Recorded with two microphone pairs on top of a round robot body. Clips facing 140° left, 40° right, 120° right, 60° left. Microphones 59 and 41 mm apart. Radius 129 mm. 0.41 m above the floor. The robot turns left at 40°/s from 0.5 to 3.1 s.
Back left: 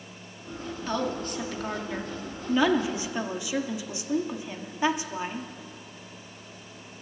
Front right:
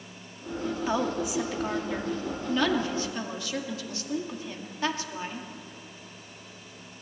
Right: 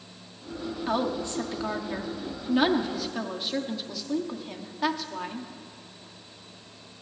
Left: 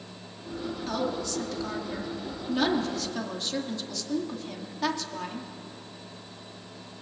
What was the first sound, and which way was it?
A woman speaking, 105° right.